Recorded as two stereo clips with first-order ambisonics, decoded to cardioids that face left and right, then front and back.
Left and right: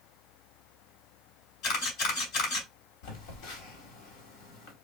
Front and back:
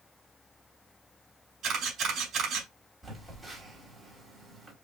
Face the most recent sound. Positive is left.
turn(degrees=95)